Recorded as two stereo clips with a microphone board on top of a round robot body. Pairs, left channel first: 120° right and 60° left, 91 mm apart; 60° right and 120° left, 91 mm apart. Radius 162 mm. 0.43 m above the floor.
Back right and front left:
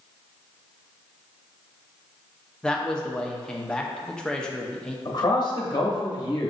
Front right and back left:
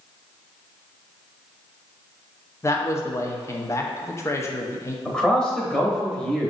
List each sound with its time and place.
2.6 s a man speaking: 45° right, 0.9 m
5.0 s a man speaking: 145° right, 1.0 m